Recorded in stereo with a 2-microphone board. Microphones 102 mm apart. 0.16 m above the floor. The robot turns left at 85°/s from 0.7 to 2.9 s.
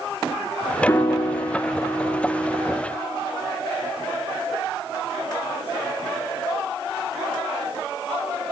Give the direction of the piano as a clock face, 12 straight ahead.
8 o'clock.